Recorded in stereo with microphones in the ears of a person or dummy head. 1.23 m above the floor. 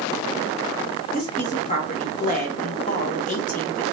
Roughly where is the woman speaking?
Left.